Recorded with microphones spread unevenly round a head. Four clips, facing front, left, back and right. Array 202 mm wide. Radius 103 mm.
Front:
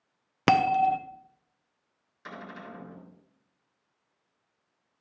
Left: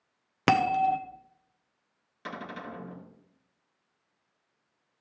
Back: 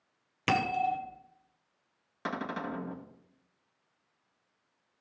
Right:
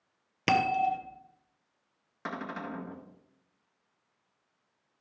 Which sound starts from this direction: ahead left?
A bell, at 0.5 s.